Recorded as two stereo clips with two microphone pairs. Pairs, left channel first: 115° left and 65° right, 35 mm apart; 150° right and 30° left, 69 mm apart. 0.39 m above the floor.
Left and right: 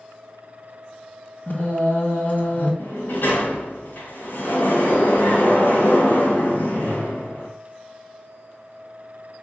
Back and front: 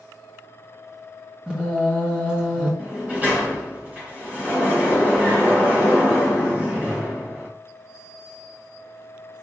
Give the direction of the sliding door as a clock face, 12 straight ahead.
9 o'clock.